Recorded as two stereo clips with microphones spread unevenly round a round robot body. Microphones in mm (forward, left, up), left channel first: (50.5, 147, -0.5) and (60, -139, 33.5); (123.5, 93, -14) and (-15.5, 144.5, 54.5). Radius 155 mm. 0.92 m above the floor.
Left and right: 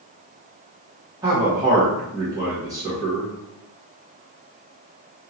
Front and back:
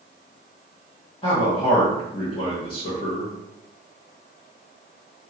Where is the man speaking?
10° right, 1.0 m.